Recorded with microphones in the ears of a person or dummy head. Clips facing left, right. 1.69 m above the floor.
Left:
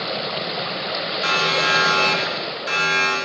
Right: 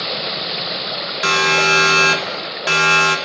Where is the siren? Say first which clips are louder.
Right 6 dB; 65° right (ahead or behind), 5.5 m; by 3.2 s 75° right (ahead or behind), 5.5 m.